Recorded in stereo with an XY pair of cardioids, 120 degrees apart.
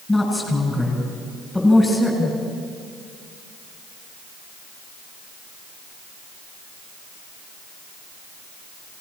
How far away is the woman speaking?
About 7.5 m.